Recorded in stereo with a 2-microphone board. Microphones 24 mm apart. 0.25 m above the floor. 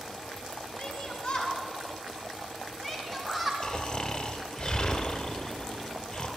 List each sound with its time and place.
0.8 s a shout: 50° left (ahead or behind), 3.5 m; by 3.5 s 5° left (ahead or behind), 2.5 m
3.6 s snoring: 40° left (ahead or behind), 1.4 m